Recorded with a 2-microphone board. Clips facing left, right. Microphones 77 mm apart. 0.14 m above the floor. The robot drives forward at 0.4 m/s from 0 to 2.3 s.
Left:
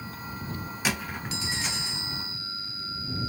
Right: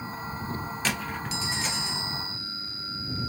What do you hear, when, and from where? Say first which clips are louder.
0.8 s a squeak: left 1 dB; 10° left (ahead or behind), 0.8 m